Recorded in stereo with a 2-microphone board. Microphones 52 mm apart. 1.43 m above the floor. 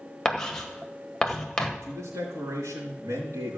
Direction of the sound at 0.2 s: 10° left (ahead or behind).